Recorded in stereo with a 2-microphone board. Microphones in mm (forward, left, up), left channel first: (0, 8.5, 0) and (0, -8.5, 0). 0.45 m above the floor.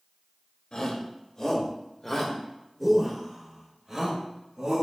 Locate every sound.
0.7 s a shout: 50° left (ahead or behind), 1.7 m; by 4.8 s 30° right (ahead or behind), 2 m